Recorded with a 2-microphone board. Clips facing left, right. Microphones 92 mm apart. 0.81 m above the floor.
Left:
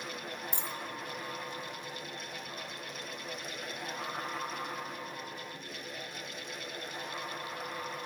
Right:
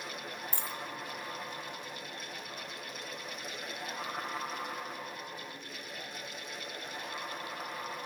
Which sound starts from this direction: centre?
A dropped coin, at 0.5 s.